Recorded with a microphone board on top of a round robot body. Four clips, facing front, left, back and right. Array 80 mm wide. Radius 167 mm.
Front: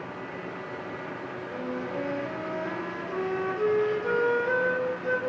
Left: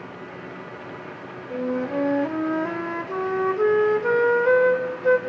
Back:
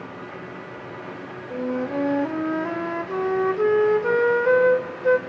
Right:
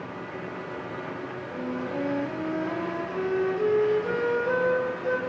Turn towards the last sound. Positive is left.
turn(degrees=130)